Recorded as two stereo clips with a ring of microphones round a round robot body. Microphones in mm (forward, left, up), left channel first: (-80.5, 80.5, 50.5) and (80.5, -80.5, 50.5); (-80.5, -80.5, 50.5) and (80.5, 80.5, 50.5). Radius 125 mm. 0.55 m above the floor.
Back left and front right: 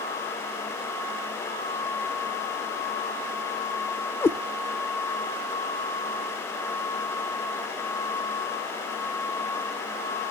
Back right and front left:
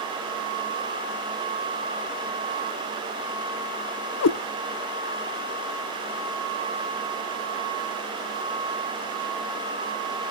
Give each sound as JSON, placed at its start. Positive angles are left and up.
{"t": 4.2, "sound": "a cat meowing", "azimuth_deg": -145, "distance_m": 0.6}